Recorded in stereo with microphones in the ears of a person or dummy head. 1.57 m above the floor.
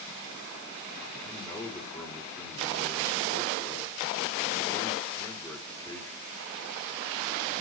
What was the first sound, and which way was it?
A man speaking, 10° left (ahead or behind).